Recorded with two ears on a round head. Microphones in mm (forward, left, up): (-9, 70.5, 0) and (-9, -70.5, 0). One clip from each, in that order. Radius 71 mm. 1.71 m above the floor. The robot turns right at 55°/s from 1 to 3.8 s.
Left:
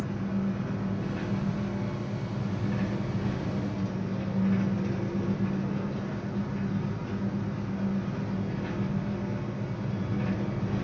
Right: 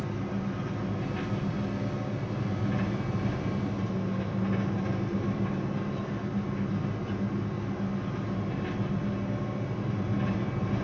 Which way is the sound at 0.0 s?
100° right.